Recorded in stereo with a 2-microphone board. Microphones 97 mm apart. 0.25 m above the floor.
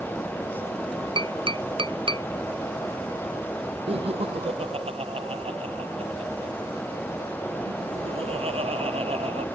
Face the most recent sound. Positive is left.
turn(degrees=-80)